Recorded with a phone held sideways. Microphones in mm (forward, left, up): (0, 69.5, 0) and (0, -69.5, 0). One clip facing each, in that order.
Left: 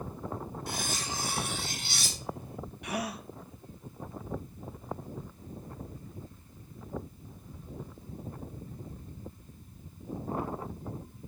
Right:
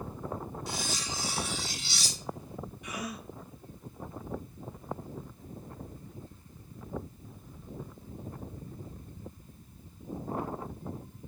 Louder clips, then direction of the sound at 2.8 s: Left 5 dB; 75° left (ahead or behind).